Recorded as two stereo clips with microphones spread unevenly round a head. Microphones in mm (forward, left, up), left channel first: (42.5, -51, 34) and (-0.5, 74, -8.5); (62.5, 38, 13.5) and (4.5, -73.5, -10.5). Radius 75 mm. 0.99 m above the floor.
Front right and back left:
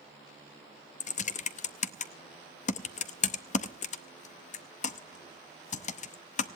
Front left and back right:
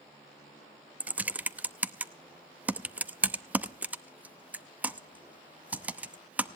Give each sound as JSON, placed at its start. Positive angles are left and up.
{"t": 1.0, "sound": "typing on a keyboard", "azimuth_deg": -40, "distance_m": 0.7}